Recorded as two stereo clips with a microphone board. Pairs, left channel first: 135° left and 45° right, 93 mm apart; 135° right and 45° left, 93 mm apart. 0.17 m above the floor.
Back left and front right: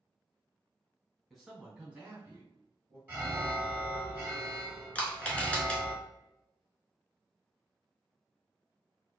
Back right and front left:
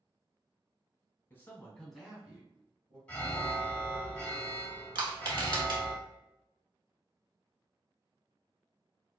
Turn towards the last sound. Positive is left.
turn(degrees=65)